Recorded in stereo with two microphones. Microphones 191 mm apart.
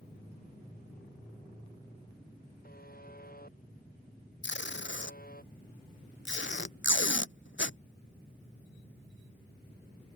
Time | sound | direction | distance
2.6 | a buzzer | 50° left (ahead or behind) | ?
4.4 | tape being pulled | 75° left (ahead or behind) | ?